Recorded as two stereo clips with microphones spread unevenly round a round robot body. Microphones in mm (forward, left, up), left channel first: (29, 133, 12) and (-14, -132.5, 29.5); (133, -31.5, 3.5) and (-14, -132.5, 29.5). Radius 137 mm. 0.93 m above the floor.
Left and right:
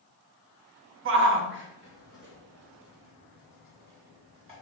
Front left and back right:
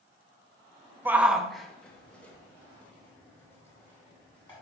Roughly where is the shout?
Ahead right.